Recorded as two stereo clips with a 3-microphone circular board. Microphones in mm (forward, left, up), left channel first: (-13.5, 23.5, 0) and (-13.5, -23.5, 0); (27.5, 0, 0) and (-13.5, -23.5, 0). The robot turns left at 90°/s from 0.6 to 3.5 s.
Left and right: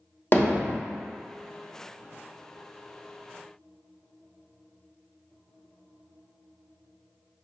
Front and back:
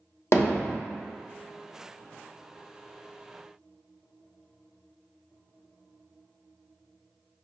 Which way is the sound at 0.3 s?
50° left.